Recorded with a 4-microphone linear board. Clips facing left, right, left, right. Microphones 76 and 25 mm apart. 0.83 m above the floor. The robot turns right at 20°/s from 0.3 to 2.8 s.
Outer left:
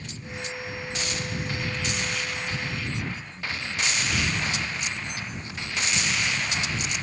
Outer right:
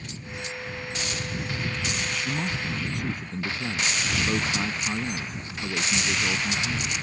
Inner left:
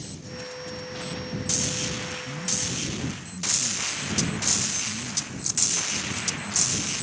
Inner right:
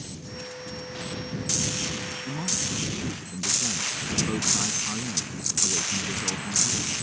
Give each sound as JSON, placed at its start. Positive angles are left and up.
{"t": 2.2, "sound": "a man speaking", "side_deg": -70}